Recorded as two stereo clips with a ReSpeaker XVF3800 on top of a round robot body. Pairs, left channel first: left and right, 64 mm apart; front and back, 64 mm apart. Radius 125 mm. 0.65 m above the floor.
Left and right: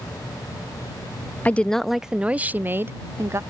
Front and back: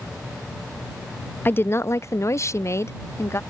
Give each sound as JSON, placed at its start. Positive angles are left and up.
{"t": 1.4, "sound": "a woman speaking", "azimuth_deg": 35}